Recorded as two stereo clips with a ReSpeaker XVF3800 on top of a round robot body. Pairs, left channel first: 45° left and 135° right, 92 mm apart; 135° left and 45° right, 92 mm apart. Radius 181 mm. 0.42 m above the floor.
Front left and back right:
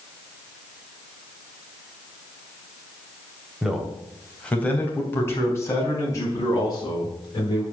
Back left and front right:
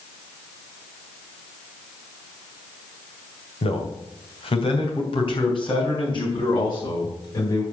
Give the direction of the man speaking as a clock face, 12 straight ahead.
7 o'clock.